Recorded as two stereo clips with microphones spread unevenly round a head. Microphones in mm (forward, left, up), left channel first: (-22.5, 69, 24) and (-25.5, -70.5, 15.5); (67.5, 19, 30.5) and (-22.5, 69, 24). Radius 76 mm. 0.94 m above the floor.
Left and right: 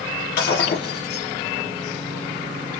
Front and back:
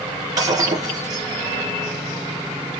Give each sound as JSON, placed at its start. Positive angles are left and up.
{"t": 0.4, "sound": "breaking glass", "azimuth_deg": 95, "distance_m": 4.5}